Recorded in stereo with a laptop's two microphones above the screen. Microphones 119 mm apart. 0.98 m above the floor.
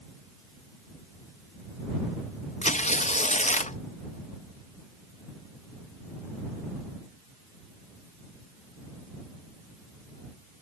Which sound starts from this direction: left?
Tearing paper, at 2.6 s.